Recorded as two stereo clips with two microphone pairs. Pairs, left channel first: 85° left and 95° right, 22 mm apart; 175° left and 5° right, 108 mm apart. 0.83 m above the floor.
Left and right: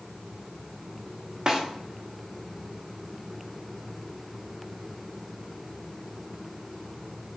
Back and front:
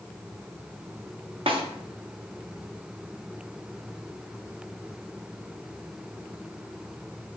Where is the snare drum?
35° right, 0.6 m.